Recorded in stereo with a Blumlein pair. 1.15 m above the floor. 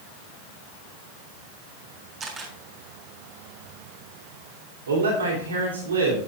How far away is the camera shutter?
About 3.5 m.